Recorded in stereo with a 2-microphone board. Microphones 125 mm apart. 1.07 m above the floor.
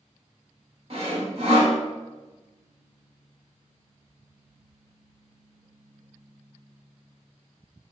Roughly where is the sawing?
Right.